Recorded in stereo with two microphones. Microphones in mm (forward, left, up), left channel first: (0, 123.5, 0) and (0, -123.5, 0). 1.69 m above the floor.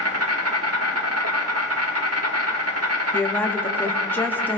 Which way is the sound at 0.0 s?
80° right.